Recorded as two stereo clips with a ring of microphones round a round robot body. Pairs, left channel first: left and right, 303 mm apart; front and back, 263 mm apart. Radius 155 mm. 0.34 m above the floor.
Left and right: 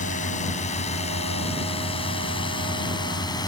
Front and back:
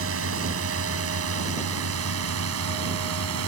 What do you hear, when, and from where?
0.0 s a drone: 155° left; by 3.5 s 165° left